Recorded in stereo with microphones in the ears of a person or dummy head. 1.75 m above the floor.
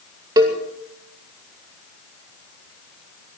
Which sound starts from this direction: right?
A cowbell, at 0.4 s.